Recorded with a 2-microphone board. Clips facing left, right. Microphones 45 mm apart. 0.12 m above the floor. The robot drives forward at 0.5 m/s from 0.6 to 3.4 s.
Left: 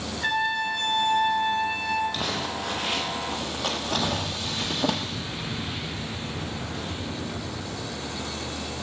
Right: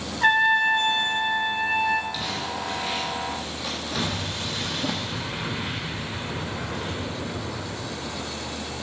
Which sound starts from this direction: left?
Crumpling, at 2.1 s.